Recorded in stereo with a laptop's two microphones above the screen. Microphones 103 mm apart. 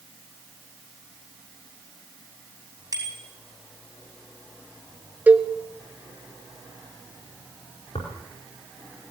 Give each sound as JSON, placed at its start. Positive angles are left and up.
{"t": 2.9, "sound": "a bicycle bell", "side_deg": -35, "distance_m": 5.5}
{"t": 5.3, "sound": "a cowbell", "side_deg": -15, "distance_m": 0.8}
{"t": 8.0, "sound": "tearing paper", "side_deg": 75, "distance_m": 4.5}